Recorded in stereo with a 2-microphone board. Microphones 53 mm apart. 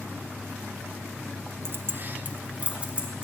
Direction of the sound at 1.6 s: 45° right (ahead or behind).